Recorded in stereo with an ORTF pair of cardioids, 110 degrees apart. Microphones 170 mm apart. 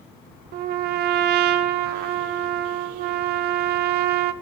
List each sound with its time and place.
0.5 s a trumpet: 70° right, 0.9 m